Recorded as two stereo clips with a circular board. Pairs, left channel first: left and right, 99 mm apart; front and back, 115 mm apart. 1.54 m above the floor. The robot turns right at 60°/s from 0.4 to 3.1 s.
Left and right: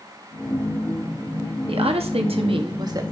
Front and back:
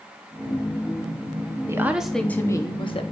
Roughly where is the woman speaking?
Behind right.